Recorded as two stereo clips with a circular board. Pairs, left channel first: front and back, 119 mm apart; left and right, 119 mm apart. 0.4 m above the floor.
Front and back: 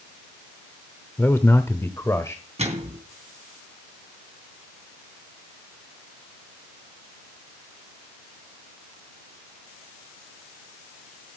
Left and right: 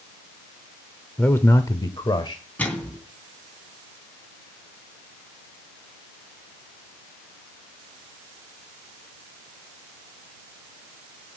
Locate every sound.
1.2 s a man speaking: 35° left, 0.8 m; by 2.4 s 55° left, 1.4 m
2.6 s a microwave: 165° left, 3 m